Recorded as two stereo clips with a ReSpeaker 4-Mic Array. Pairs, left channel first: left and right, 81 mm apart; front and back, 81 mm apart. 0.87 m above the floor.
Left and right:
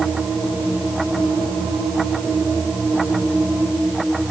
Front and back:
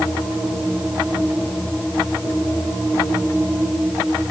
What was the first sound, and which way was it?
Only background noise.